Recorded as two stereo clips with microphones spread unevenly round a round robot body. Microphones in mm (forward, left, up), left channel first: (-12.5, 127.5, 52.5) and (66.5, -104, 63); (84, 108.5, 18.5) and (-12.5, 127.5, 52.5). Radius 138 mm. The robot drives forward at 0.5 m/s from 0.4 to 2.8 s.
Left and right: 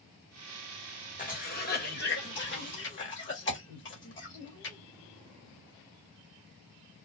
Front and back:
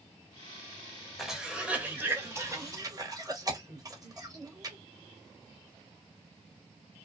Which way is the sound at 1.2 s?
60° left.